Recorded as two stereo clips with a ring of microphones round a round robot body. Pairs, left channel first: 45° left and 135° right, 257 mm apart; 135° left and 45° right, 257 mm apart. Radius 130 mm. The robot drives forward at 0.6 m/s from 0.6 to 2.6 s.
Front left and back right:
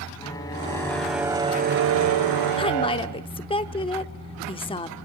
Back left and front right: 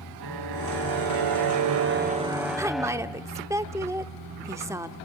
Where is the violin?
30° right, 0.9 m; by 3.3 s 135° right, 0.6 m.